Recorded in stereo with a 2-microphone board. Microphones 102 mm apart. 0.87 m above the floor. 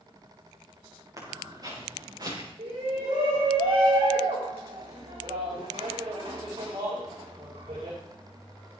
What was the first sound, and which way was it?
Footsteps, 35° right (ahead or behind).